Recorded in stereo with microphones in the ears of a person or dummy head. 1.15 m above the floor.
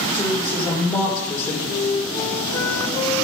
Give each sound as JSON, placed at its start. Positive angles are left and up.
{"t": 0.1, "sound": "a woman speaking", "side_deg": 15, "distance_m": 3.5}
{"t": 1.7, "sound": "a flute", "side_deg": 20, "distance_m": 1.0}